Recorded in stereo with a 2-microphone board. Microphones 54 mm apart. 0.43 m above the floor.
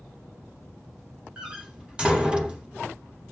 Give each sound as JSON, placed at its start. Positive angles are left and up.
{"t": 1.4, "sound": "a door slam", "side_deg": -20, "distance_m": 0.9}